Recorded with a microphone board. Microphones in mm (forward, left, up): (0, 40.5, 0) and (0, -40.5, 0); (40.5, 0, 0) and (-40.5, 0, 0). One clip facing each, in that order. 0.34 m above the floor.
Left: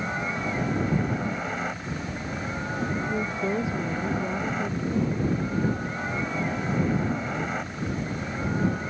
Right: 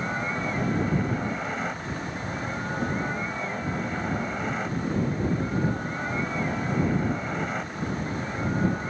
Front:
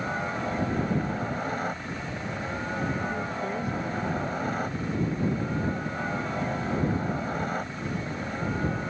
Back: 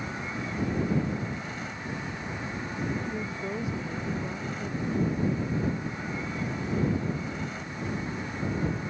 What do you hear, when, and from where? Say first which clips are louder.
0.0 s a helicopter: even, front 5 dB; straight ahead
3.1 s a woman speaking: left 4 dB, front 3 dB; 95° left